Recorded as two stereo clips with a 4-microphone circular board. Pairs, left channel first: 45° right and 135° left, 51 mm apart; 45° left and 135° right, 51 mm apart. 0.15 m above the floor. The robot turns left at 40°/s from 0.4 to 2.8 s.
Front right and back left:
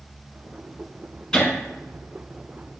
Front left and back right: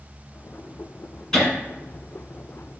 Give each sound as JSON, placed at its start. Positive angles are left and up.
{"t": 1.3, "sound": "laughter", "azimuth_deg": -5, "distance_m": 1.0}